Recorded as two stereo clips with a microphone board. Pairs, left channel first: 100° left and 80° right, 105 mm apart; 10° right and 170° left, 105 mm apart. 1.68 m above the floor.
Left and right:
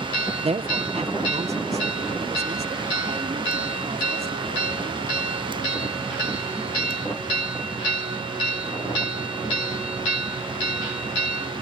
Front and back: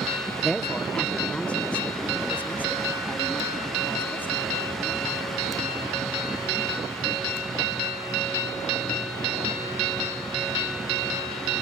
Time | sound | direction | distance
0.4 | a woman speaking | 100° right | ?